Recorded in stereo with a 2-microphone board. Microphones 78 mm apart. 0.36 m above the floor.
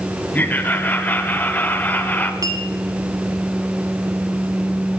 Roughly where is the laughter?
Left.